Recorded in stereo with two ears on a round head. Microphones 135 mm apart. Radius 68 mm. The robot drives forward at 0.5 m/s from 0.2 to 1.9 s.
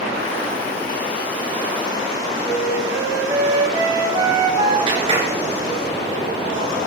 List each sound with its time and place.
2.4 s a flute: 25° right (ahead or behind), 5 m
4.9 s a clap: 35° right (ahead or behind), 8 m